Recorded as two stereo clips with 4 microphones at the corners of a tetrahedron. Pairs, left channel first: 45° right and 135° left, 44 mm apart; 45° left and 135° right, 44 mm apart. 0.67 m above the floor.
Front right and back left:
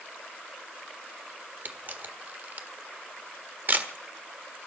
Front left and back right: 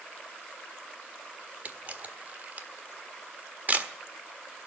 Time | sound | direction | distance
1.6 | a camera shutter | 175° left | 1.4 m